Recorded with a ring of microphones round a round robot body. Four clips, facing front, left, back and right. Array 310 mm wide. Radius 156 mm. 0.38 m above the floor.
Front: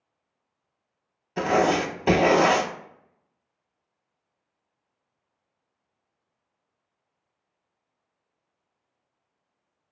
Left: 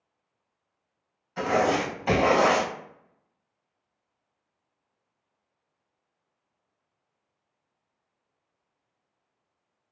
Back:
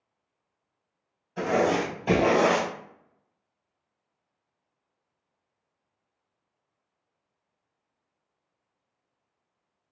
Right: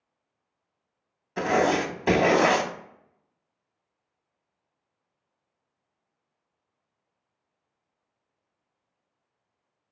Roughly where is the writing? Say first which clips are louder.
Right 1 dB, front 2 dB; ahead right.